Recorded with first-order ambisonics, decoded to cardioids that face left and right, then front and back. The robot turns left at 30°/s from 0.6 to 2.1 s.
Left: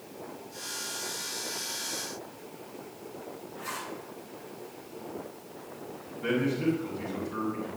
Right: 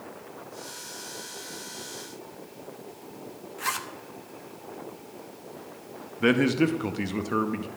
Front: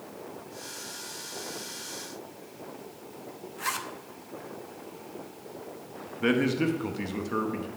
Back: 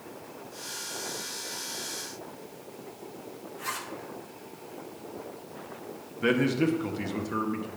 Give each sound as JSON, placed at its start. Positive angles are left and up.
{"t": 3.6, "sound": "a zipper", "azimuth_deg": -60, "distance_m": 0.7}
{"t": 6.2, "sound": "a man speaking", "azimuth_deg": -85, "distance_m": 0.7}